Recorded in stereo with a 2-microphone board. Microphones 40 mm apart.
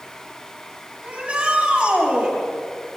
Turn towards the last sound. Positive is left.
turn(degrees=-35)  # may be behind; listen again after turning